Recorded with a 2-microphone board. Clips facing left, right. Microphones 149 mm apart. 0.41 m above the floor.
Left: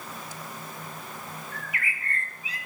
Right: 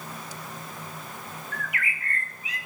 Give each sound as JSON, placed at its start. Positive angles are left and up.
{"t": 1.5, "sound": "a bird", "side_deg": 30, "distance_m": 1.4}